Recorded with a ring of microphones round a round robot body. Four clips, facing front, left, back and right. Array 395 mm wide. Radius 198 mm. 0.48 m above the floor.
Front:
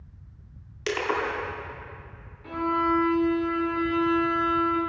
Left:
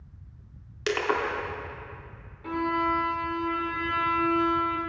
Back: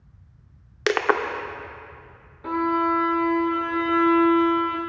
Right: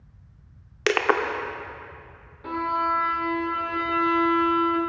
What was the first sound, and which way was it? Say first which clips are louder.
Crushing: right 5 dB, back 6 dB; 145° right.